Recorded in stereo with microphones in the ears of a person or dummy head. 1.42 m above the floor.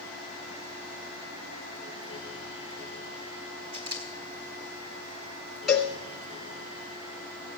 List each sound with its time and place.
3.7 s a camera shutter: 35° right (ahead or behind), 2.5 m
5.7 s a cowbell: 5° right (ahead or behind), 2 m